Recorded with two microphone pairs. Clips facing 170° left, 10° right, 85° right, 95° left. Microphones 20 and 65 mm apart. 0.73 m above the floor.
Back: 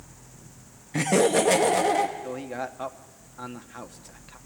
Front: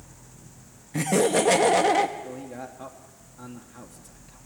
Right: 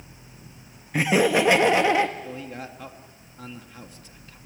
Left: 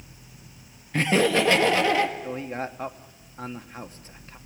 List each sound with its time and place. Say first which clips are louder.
0.9 s laughter: back 1 dB, right 1 dB; 140° right, 1.0 m; by 2.1 s 30° right, 1.1 m
2.2 s a man speaking: back 4 dB, left 5 dB; 130° left, 1.2 m